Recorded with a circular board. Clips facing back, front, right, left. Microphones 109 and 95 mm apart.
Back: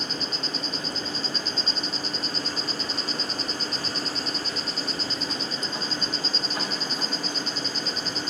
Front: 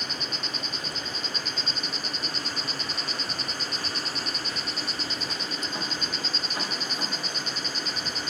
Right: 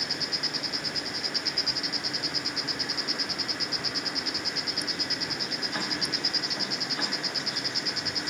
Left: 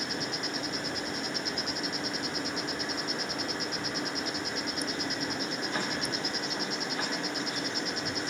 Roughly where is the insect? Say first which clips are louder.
Back 3 dB, left 2 dB; behind left.